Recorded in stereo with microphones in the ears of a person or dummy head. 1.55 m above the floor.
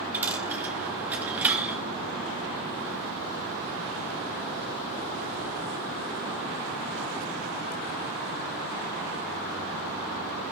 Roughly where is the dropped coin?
Centre.